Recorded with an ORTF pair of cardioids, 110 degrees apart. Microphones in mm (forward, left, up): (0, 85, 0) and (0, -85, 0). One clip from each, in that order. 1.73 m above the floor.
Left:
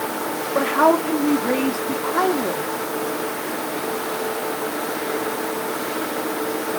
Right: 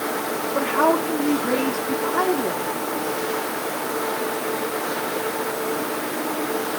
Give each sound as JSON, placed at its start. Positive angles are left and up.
{"t": 0.6, "sound": "a woman speaking", "azimuth_deg": 20, "distance_m": 4.5}